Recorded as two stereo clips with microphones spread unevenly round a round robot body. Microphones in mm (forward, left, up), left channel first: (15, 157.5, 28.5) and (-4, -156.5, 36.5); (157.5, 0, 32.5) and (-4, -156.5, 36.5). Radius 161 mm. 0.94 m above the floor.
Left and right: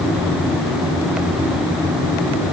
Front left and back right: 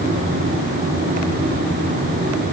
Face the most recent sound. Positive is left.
No sound to turn to.